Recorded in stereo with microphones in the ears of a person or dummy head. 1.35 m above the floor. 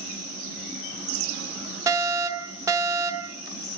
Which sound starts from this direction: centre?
A fire alarm, at 1.9 s.